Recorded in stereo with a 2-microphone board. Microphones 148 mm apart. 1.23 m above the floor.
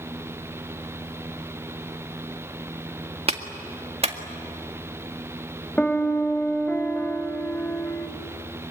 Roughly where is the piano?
Centre.